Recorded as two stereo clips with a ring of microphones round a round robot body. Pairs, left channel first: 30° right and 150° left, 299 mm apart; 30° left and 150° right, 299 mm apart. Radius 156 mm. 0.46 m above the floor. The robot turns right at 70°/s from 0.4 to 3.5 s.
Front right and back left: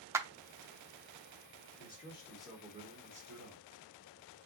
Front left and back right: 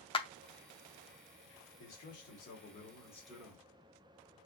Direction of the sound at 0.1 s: 80° left.